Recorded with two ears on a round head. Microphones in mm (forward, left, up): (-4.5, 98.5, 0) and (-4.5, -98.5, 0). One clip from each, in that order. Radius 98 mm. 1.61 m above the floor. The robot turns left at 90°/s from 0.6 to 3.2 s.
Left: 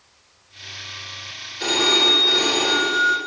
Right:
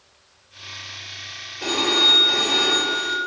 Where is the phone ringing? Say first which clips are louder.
Left 1 dB; 115° left, 3.5 m; by 3.2 s 25° right, 3.5 m.